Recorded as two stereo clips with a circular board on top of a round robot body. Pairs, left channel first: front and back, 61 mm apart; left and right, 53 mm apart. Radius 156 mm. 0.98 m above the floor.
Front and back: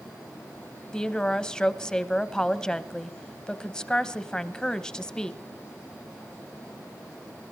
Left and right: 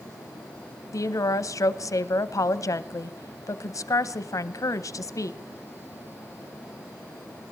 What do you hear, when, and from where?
0.9 s a woman speaking: 80° left, 0.9 m